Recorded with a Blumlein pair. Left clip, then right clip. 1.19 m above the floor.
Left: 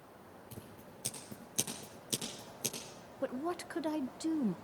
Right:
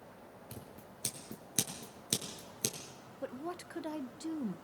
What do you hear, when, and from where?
0.5 s scissors: 65° right, 6.5 m
3.2 s a woman speaking: 15° left, 0.8 m